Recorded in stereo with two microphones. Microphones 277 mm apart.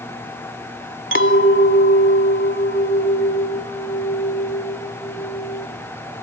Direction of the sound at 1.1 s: 45° left (ahead or behind).